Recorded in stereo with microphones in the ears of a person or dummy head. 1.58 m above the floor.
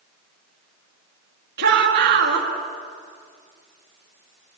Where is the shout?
60° right (ahead or behind), 2.5 m.